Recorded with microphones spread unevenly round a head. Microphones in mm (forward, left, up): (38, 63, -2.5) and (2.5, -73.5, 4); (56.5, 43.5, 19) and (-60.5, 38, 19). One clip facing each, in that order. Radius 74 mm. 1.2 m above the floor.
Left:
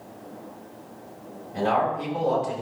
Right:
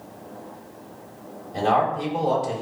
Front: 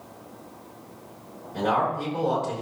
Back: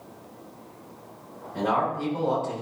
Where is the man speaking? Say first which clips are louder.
Right 2 dB, front 1 dB; 75° right, 7.5 m.